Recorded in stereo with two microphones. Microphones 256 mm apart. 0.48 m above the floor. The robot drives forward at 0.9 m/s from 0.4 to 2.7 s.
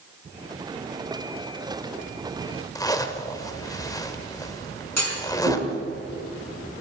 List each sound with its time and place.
2.8 s a zipper: 15° left (ahead or behind), 1.2 m
5.0 s a clunk: 75° right (ahead or behind), 5 m